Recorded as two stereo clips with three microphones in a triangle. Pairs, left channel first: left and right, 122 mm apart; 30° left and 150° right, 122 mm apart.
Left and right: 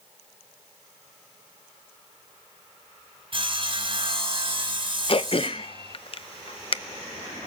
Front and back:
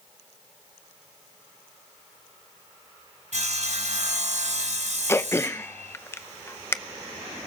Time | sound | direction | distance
3.3 | sawing | 135° right | 2.5 m
5.1 | throat clearing | 90° left | 0.6 m